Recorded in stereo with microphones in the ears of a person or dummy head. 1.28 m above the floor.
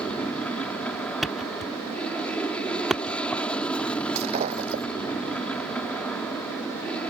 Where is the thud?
5° left (ahead or behind).